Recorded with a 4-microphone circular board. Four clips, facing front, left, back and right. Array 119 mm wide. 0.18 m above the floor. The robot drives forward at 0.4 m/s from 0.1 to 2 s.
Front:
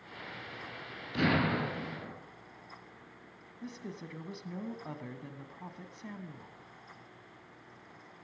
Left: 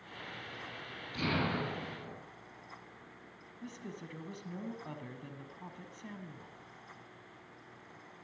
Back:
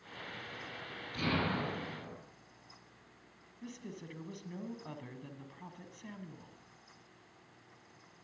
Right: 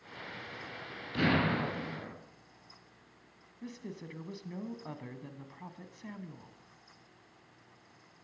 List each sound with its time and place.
1.1 s an explosion: 40° right, 3.5 m; by 2.1 s 45° right, 3.5 m
3.6 s a woman speaking: 25° right, 1.4 m